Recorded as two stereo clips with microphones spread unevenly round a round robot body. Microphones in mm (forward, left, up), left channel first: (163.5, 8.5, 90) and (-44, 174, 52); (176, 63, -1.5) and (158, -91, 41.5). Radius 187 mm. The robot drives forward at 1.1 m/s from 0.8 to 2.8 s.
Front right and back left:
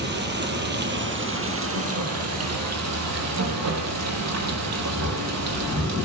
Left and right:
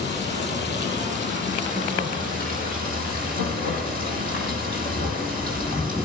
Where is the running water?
90° left, 4 m; by 6.0 s 120° left, 4.5 m.